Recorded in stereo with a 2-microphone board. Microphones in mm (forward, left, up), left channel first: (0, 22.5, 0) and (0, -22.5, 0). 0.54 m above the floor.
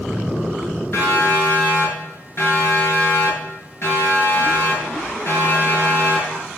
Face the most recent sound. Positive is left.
turn(degrees=45)  # may be behind; listen again after turning